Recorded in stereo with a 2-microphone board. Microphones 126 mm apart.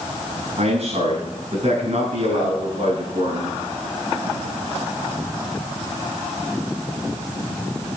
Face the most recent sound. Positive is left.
turn(degrees=-55)  # may be behind; listen again after turning